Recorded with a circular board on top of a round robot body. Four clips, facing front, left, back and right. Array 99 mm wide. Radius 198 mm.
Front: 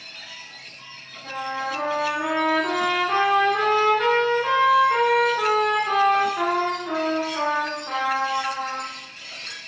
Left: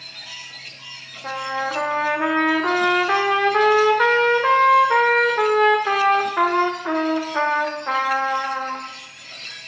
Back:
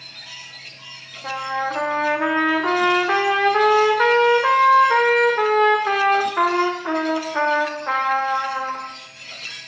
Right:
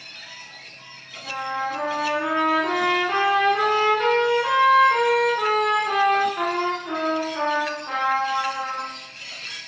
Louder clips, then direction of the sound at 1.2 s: Left 2 dB, back 4 dB; 135° left.